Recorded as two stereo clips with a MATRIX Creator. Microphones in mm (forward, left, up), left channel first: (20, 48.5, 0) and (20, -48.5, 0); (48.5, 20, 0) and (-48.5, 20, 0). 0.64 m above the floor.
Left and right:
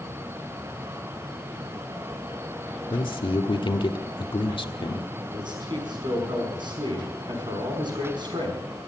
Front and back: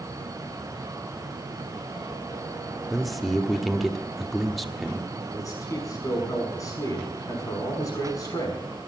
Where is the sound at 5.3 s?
55° right, 5.5 m.